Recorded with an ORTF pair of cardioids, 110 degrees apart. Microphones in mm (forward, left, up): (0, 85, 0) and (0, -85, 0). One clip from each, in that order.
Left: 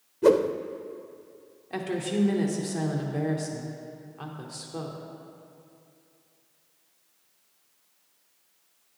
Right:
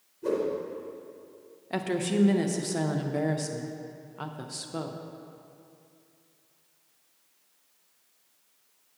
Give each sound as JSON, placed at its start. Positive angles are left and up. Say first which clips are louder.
{"t": 0.2, "sound": "a whoosh", "louder": "left 8 dB", "azimuth_deg": 70, "distance_m": 0.5}
{"t": 1.7, "sound": "a woman speaking", "louder": "right 1 dB", "azimuth_deg": -20, "distance_m": 0.8}